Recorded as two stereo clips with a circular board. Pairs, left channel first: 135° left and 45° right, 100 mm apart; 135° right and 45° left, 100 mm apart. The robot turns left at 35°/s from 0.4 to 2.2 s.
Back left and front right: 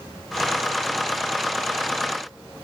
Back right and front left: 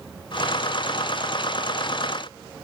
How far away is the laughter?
No laughter in this recording.